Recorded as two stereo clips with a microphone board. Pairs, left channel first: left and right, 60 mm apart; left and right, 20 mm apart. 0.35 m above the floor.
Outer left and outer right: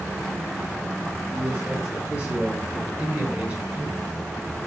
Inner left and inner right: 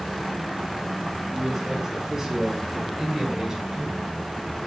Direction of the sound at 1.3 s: 15° right (ahead or behind).